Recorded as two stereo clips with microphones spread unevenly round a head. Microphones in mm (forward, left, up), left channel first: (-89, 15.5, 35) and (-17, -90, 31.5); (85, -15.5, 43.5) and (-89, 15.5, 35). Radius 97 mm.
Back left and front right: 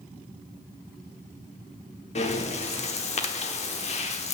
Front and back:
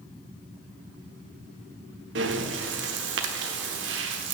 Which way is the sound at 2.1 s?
150° left.